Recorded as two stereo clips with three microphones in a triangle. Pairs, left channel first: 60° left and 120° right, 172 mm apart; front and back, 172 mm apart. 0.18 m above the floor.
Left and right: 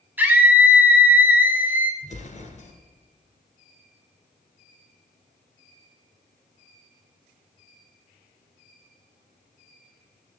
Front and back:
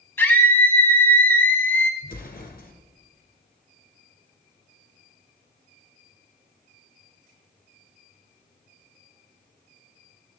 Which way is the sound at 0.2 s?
60° right.